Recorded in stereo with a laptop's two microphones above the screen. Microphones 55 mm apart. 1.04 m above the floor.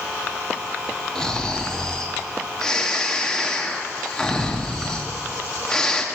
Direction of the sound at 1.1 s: 10° left (ahead or behind).